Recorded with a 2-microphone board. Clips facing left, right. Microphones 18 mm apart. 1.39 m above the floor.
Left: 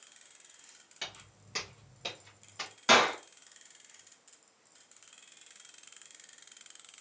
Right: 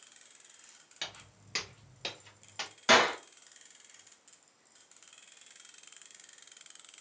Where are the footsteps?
20° right (ahead or behind), 1.4 m; by 2.7 s 45° right (ahead or behind), 2.0 m.